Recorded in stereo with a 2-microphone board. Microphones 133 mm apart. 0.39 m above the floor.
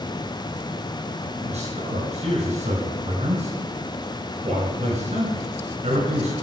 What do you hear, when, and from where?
1.4 s a man speaking: 55° right (ahead or behind), 4.5 m